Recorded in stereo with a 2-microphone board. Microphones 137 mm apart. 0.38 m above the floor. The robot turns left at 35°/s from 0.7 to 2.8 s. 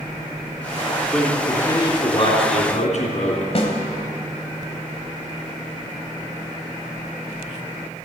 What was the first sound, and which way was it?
A man speaking, 175° left.